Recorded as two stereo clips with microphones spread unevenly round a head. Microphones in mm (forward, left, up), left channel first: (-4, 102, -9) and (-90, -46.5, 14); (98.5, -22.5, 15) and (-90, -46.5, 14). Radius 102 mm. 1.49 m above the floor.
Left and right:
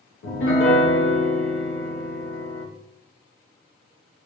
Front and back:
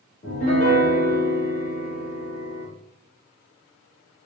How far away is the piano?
About 0.9 m.